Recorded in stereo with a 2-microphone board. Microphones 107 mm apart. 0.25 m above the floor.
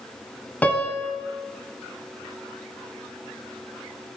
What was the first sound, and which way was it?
A piano, 15° left (ahead or behind).